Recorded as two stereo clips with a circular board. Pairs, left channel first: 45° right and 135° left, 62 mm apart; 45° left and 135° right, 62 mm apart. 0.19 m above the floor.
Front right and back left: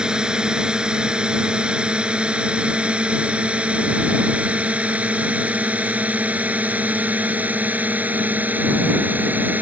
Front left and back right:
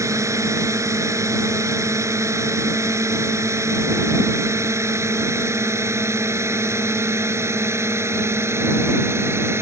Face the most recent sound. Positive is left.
turn(degrees=-170)